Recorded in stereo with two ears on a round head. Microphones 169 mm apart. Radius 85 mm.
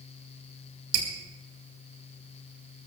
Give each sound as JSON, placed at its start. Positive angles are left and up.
{"t": 0.9, "sound": "dripping", "side_deg": -75, "distance_m": 4.0}